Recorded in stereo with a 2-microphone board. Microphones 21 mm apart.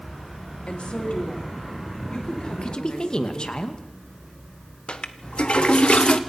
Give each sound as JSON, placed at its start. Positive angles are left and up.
{"t": 0.7, "sound": "a woman speaking", "side_deg": 55, "distance_m": 3.0}
{"t": 2.5, "sound": "a woman speaking", "side_deg": 40, "distance_m": 2.0}
{"t": 4.9, "sound": "a toilet flushing", "side_deg": 60, "distance_m": 1.3}